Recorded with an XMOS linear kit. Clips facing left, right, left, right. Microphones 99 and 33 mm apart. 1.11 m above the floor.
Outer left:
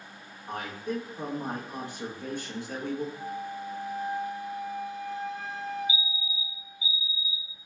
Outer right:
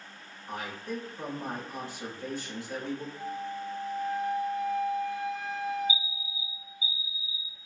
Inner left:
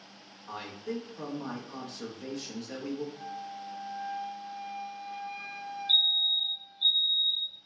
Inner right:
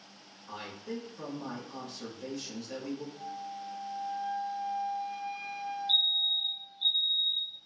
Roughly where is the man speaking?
Left.